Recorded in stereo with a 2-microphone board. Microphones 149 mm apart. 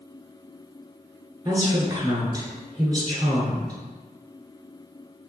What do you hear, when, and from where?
1.4 s a woman speaking: 25° right (ahead or behind), 1.3 m